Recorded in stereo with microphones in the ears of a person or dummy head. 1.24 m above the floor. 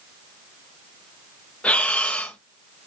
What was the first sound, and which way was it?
Breathing, 5° left (ahead or behind).